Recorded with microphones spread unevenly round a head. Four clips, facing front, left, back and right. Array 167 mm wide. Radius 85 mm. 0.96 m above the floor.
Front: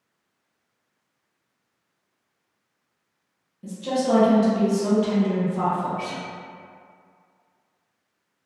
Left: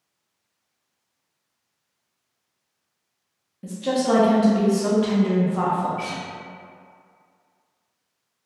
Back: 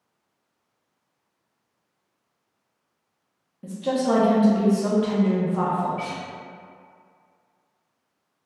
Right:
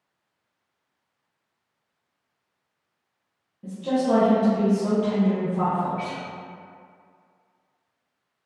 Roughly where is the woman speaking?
Behind left.